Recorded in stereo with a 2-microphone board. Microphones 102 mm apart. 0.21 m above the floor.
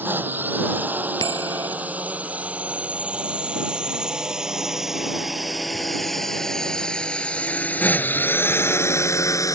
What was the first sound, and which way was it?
A drone, 20° right (ahead or behind).